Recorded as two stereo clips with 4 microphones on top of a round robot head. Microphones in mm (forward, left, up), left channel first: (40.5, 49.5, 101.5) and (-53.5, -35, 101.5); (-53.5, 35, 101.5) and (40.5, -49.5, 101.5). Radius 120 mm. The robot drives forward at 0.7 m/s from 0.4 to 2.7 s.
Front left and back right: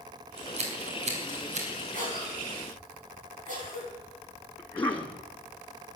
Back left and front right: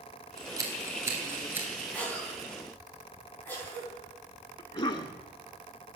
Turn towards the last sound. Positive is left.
turn(degrees=115)